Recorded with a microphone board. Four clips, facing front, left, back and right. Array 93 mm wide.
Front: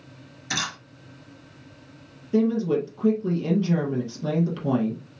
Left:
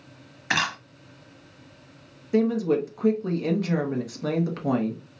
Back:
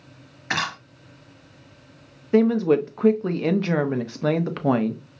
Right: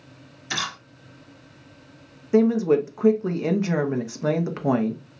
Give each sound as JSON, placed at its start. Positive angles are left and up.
{"t": 0.5, "sound": "a camera shutter", "azimuth_deg": 130, "distance_m": 0.8}
{"t": 2.3, "sound": "a woman speaking", "azimuth_deg": -160, "distance_m": 0.6}